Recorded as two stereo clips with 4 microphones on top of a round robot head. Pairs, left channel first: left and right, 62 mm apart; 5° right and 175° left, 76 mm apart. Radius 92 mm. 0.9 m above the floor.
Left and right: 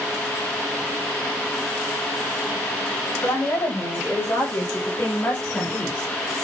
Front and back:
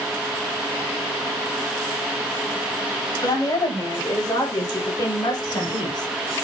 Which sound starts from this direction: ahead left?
A woman speaking, at 3.2 s.